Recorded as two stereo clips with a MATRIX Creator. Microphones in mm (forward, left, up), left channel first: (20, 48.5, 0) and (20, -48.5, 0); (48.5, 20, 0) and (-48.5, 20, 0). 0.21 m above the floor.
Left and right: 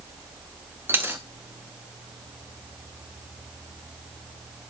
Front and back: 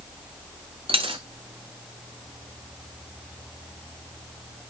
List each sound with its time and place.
0.9 s a dropped coin: 160° right, 1.2 m